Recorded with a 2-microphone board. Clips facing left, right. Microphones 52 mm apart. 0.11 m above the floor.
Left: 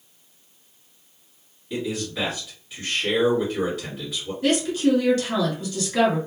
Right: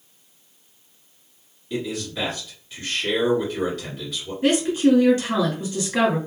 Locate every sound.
1.7 s a man speaking: 10° left (ahead or behind), 1.8 m
4.4 s a woman speaking: 20° right (ahead or behind), 1.4 m